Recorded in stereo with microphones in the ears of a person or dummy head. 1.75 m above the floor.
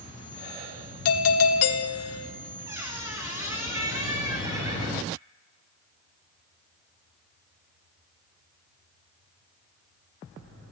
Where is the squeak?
15° right (ahead or behind), 2.0 m.